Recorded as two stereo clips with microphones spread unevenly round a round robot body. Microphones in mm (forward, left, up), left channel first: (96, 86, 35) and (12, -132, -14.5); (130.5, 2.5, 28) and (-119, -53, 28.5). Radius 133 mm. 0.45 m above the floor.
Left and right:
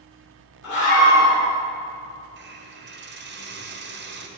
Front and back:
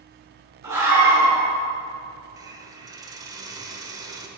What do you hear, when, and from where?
0.6 s a scream: 115° left, 4 m
2.4 s a hiss: 95° right, 1.2 m